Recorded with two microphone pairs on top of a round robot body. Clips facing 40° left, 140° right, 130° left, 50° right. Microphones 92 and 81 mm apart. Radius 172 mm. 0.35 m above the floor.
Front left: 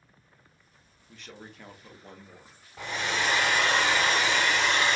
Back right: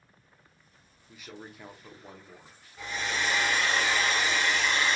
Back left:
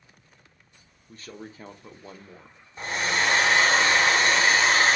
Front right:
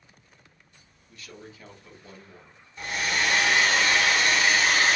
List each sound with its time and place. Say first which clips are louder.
1.1 s a man speaking: back right 1 dB, back left 4 dB; 145° left, 1.0 m
2.8 s a hair dryer: front left 2 dB, back left 2 dB; 70° left, 0.6 m